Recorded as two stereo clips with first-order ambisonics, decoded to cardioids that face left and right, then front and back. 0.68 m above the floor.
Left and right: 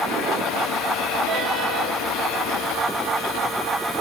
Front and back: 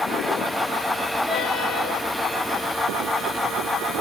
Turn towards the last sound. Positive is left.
No sound to turn to.